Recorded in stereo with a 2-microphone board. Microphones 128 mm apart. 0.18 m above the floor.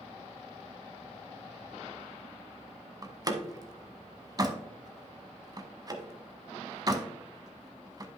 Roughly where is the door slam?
Right.